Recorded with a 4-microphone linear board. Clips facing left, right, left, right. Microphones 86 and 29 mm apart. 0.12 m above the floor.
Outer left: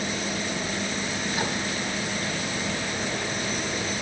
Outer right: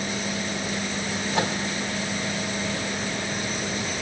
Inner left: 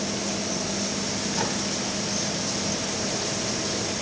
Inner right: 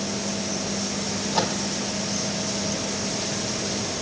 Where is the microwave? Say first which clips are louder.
Outer right 5 dB, inner right 5 dB; 70° right (ahead or behind), 4 m.